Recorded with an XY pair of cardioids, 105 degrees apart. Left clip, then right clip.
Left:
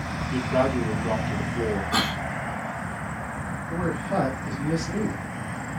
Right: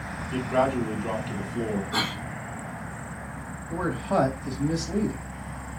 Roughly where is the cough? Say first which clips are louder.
Left 2 dB; ahead left.